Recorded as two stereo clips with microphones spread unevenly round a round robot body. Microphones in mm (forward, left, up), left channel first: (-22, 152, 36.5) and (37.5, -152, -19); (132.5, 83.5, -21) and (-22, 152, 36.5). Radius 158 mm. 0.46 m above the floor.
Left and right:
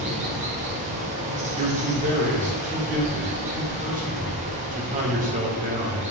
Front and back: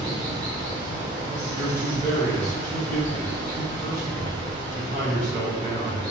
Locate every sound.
0.0 s running water: 120° right, 1.3 m
1.6 s a man speaking: 120° right, 1.7 m